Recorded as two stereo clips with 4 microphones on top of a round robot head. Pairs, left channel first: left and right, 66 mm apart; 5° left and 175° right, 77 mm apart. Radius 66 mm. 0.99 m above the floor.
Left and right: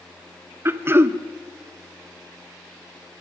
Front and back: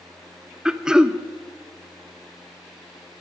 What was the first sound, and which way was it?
Throat clearing, 100° right.